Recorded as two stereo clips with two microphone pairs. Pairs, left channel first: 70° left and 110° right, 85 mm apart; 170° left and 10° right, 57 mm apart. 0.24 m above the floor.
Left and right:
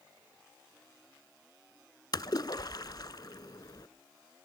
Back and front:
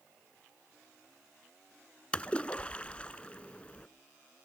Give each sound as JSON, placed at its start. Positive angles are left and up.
{"t": 2.1, "sound": "a splash", "azimuth_deg": 105, "distance_m": 0.5}